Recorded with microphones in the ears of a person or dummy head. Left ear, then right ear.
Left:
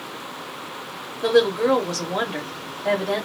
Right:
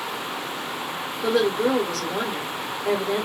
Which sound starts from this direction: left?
A woman speaking, at 1.2 s.